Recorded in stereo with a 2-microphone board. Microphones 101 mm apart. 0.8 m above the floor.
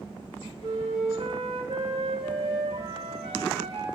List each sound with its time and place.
0.6 s a flute: 75° right (ahead or behind), 1.5 m